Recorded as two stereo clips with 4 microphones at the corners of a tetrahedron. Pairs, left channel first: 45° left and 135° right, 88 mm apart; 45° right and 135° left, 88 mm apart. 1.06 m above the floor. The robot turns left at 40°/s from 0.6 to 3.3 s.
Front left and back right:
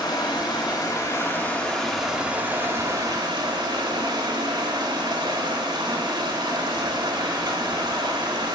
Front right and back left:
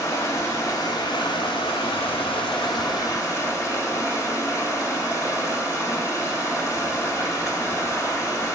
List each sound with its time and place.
0.0 s running water: 10° left, 1.6 m; by 8.6 s 100° right, 1.6 m